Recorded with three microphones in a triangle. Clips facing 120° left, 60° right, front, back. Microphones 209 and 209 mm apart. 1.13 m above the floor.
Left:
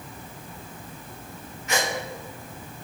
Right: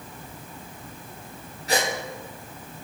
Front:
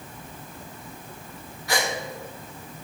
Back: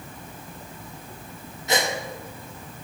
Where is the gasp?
110° right, 0.9 m.